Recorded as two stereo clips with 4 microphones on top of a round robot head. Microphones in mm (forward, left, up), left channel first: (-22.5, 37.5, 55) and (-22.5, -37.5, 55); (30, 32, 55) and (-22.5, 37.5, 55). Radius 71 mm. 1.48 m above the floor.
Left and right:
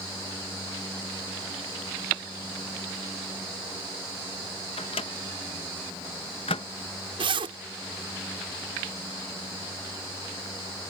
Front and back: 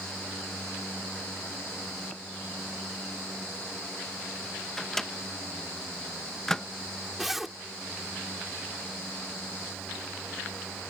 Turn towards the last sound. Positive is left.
turn(degrees=-100)